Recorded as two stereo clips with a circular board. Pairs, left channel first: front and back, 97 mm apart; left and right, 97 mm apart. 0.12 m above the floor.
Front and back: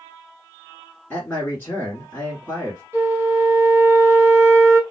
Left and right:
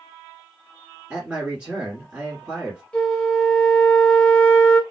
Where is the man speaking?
35° right, 1.3 m.